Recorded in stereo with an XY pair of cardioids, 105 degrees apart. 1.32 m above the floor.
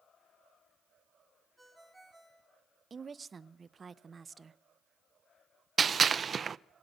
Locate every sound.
1.6 s a ringtone: 10° right, 3.5 m
2.9 s a woman speaking: 30° right, 0.7 m
5.8 s a gunshot: 40° right, 0.5 m